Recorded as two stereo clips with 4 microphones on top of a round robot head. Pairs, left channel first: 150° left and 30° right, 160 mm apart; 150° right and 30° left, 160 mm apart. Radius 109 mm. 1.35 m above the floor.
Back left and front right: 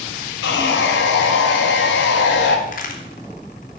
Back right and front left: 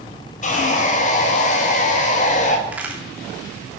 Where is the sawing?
165° left, 1.9 m.